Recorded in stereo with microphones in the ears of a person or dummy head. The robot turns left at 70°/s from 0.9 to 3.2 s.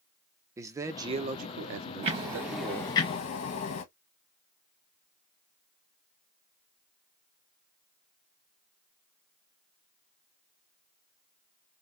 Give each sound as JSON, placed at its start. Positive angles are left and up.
{"t": 0.6, "sound": "a man speaking", "azimuth_deg": -20, "distance_m": 0.8}
{"t": 2.0, "sound": "ticking", "azimuth_deg": -145, "distance_m": 1.0}